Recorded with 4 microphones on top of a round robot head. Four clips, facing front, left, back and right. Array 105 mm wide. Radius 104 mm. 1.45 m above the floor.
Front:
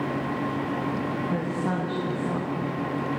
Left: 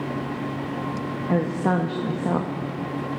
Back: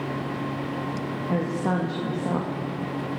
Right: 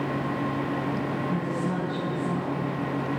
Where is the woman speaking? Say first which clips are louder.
Left 5 dB, back 2 dB; 105° left, 1.9 m.